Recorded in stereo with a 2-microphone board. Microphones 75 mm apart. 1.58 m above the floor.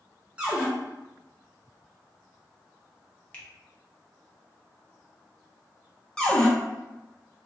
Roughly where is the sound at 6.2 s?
Centre.